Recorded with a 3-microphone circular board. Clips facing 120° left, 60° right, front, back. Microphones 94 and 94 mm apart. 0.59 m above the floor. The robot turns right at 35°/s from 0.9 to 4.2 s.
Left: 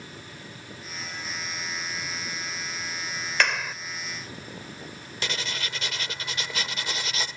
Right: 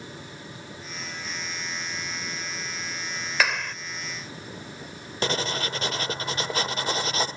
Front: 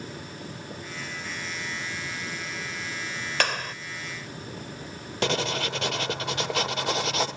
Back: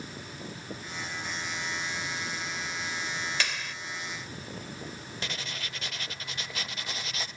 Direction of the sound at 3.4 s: 25° left.